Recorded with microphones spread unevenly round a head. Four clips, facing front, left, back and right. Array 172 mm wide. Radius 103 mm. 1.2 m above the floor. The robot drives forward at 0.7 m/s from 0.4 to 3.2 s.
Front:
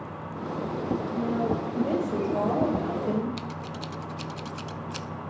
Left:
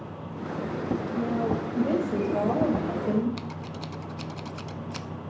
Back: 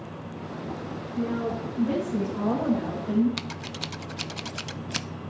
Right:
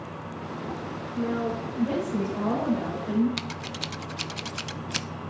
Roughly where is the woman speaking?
Ahead left.